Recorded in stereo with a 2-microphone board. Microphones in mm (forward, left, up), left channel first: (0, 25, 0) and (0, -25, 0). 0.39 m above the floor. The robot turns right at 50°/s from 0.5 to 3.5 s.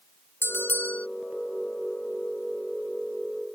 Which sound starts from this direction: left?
A bell, at 0.4 s.